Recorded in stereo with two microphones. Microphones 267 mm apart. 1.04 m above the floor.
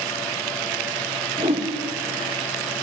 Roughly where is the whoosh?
Right.